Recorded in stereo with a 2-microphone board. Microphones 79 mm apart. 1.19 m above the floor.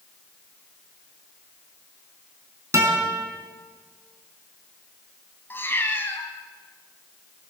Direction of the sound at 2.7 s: 35° right (ahead or behind).